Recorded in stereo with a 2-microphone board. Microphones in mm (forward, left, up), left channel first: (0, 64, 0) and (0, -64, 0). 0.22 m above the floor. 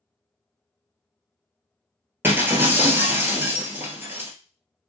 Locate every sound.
2.2 s breaking glass: 20° right (ahead or behind), 1.0 m